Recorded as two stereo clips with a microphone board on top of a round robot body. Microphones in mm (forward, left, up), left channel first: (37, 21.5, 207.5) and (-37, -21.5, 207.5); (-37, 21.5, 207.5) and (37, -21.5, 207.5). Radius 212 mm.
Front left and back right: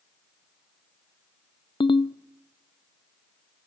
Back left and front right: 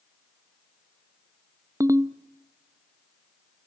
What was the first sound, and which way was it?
A ringtone, 25° left.